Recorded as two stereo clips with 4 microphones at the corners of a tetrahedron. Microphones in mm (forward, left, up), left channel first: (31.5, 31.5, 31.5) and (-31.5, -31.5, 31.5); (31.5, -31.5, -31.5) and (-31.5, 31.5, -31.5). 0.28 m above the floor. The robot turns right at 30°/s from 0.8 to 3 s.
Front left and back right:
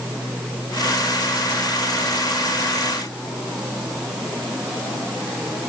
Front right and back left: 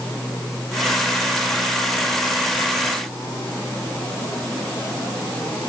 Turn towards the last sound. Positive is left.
No sound to turn to.